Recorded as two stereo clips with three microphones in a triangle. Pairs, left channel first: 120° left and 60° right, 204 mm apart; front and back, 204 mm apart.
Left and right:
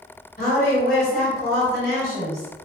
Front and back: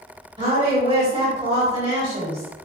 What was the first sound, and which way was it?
A woman speaking, 125° left.